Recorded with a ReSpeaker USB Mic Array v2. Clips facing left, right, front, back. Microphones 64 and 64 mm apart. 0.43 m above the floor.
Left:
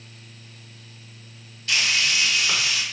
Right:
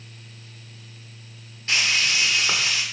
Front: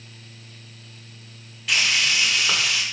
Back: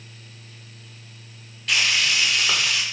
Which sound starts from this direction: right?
Frying, at 1.7 s.